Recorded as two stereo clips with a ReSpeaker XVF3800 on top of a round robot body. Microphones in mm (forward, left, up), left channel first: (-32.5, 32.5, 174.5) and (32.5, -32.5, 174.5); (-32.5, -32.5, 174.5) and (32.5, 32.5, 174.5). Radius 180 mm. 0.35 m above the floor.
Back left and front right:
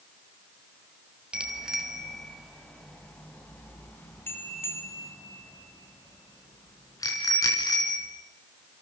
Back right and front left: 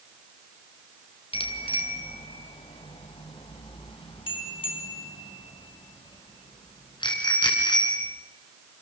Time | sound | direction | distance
1.3 | a bicycle bell | 125° right | 2.5 m